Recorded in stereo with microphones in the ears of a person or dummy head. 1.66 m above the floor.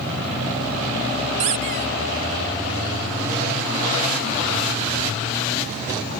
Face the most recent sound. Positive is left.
turn(degrees=-25)  # may be behind; listen again after turning